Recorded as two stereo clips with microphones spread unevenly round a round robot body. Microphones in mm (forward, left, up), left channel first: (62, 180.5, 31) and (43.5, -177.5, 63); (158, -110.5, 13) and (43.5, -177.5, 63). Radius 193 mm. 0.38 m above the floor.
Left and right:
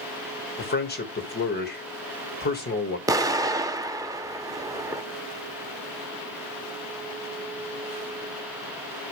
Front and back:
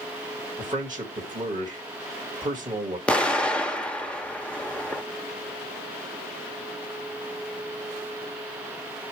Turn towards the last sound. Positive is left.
turn(degrees=-10)